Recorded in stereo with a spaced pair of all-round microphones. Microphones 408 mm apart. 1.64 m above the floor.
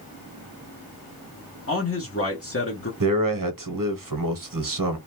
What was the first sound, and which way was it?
A man speaking, 35° left (ahead or behind).